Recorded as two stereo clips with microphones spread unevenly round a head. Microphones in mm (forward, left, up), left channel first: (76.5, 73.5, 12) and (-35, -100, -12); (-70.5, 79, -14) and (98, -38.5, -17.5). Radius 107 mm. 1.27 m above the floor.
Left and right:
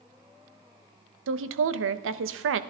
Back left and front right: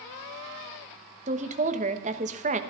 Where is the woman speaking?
95° right, 0.9 m.